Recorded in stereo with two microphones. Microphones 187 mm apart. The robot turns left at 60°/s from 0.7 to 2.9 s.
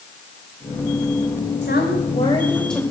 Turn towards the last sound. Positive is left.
turn(degrees=-10)